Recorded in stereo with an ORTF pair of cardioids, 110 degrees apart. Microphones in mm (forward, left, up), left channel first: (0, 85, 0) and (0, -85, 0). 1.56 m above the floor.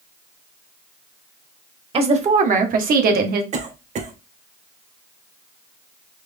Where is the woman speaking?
35° right, 1.5 m; by 3.4 s 70° right, 1.6 m.